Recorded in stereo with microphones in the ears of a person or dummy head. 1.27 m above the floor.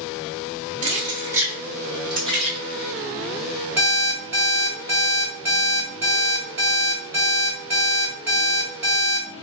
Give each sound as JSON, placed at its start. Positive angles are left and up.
{"t": 0.8, "sound": "keys jangling", "side_deg": -30, "distance_m": 0.7}
{"t": 3.8, "sound": "an alarm clock", "side_deg": -10, "distance_m": 1.6}